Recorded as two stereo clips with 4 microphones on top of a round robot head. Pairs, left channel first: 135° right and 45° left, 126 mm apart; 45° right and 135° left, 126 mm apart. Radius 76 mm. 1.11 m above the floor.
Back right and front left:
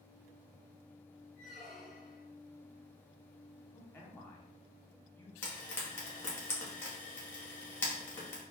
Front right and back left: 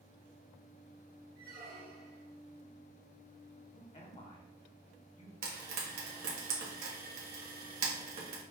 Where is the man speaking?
70° right, 1.0 m.